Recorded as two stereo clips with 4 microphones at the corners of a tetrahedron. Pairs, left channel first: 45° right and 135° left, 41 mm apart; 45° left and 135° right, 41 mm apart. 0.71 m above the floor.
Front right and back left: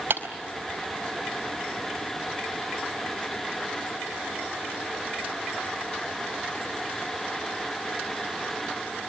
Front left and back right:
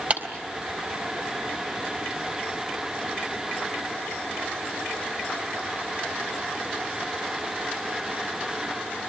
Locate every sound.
0.1 s a clap: 170° left, 4 m